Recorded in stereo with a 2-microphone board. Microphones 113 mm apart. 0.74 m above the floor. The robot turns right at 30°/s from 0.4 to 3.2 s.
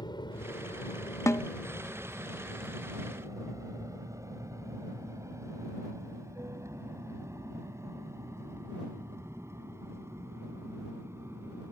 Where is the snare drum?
25° left (ahead or behind); by 1.5 s 20° left (ahead or behind).